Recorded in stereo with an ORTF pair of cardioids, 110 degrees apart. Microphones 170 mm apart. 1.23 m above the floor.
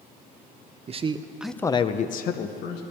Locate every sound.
0.9 s a man speaking: 40° right, 0.9 m; by 2.8 s 75° left, 1.3 m